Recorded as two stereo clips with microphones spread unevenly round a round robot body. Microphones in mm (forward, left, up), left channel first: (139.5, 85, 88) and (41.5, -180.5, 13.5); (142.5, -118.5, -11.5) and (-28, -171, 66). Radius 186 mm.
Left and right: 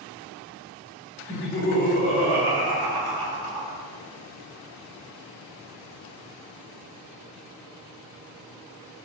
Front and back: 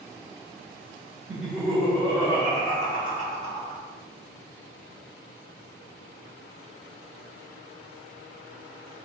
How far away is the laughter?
About 1.0 m.